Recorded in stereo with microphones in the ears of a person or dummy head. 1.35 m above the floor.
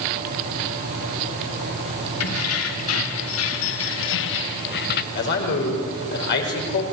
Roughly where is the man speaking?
Left.